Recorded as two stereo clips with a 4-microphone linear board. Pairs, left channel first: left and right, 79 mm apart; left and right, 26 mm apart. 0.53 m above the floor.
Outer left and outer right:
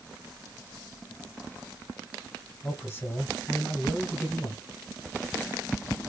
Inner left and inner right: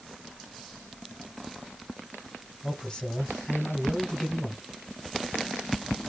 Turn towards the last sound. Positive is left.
turn(degrees=25)  # may be behind; listen again after turning